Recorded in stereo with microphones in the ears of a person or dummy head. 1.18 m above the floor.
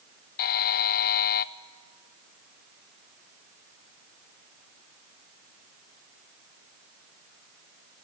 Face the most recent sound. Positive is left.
turn(degrees=50)  # may be behind; listen again after turning